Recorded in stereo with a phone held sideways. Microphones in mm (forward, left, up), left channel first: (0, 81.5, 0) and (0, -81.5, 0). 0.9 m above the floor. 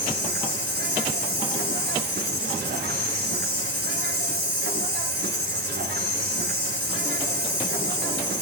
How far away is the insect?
About 6 m.